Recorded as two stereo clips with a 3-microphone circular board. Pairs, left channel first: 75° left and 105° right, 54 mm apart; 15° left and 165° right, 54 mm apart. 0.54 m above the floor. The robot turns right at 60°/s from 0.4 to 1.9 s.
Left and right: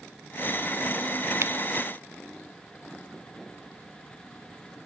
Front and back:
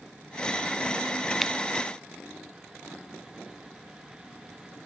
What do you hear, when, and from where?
1.4 s scissors: 70° right; by 1.5 s 60° right